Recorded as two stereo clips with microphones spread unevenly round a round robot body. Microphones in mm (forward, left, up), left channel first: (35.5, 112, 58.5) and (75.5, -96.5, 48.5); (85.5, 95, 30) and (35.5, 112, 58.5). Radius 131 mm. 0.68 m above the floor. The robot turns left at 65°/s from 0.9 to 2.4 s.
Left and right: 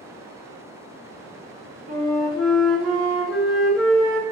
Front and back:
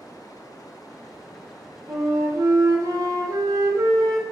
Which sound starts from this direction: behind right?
A flute, at 1.9 s.